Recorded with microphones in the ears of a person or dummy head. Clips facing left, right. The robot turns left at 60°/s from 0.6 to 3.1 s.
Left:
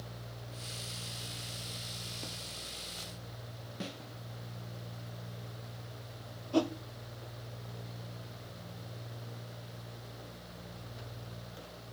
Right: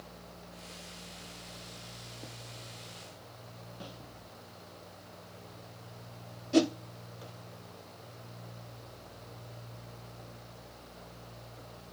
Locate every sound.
3.8 s a snare drum: 30° left (ahead or behind), 0.5 m
6.5 s a whoosh: 30° right (ahead or behind), 0.6 m